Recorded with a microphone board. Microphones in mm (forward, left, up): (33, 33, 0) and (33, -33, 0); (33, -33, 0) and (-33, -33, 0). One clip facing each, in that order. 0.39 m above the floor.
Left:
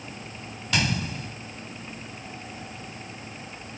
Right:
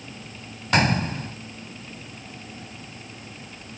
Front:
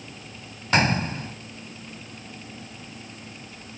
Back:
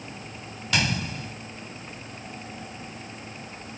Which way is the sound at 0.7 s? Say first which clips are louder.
Right 6 dB, front 5 dB; 50° right.